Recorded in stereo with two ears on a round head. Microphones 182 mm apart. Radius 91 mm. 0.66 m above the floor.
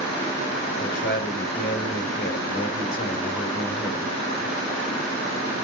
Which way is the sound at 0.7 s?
45° left (ahead or behind).